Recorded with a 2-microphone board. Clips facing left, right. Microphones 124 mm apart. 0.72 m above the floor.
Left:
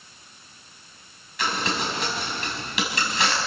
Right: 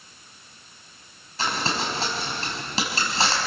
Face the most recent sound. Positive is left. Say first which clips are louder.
# even
turn(degrees=-35)  # may be behind; listen again after turning